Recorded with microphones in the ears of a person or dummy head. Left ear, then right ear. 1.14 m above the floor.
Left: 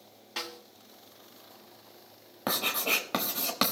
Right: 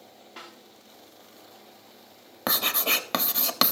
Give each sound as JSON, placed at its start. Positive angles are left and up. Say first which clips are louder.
{"t": 0.4, "sound": "a snare drum", "louder": "left 7 dB", "side_deg": 90, "distance_m": 1.6}
{"t": 2.5, "sound": "writing", "louder": "right 3 dB", "side_deg": -20, "distance_m": 1.0}